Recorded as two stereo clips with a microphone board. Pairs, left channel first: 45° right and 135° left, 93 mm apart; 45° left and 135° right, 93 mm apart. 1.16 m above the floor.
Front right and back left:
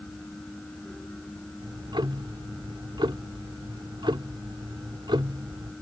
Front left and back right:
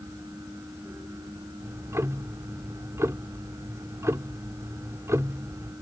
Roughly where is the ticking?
Behind.